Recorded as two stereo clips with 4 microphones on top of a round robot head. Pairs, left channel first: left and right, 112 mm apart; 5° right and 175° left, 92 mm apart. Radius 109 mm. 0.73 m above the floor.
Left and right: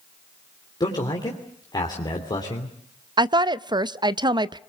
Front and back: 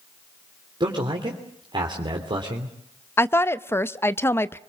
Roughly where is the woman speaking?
Ahead right.